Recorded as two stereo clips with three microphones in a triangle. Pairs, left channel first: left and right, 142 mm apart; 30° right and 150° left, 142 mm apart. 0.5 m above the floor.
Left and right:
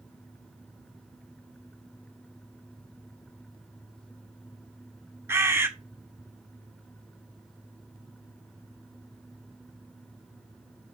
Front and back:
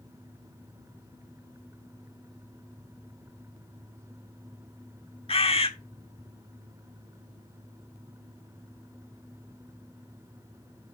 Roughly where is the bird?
Ahead right.